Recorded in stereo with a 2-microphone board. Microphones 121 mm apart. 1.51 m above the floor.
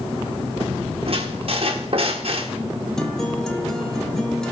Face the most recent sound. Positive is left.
turn(degrees=5)  # may be behind; listen again after turning